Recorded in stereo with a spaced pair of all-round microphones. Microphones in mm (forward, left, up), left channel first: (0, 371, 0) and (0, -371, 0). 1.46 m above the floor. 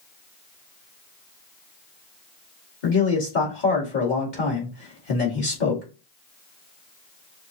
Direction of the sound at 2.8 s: 75° left (ahead or behind).